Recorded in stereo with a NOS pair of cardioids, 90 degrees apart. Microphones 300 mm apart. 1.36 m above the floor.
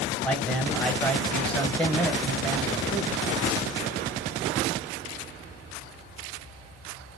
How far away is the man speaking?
About 1.2 m.